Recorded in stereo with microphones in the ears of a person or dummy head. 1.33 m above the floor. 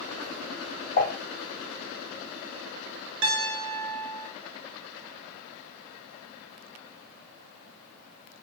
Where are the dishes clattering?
55° left (ahead or behind), 2 m.